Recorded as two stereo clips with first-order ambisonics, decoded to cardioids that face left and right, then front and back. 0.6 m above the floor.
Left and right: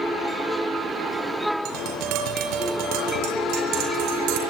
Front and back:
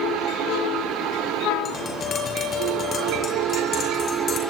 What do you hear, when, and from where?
1.6 s tapping: 65° right, 5 m